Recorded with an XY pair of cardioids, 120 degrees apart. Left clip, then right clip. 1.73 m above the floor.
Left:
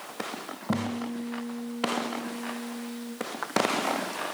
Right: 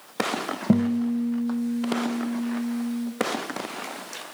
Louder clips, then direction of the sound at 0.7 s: Right 6 dB; 55° right.